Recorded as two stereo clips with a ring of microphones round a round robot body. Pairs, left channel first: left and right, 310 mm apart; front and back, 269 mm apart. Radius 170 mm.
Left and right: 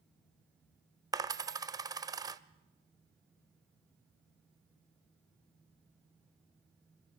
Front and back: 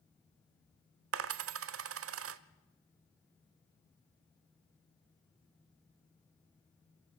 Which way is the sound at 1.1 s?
165° right.